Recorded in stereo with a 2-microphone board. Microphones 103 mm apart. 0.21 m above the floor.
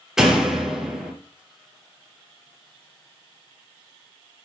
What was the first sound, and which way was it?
A door slam, 5° right (ahead or behind).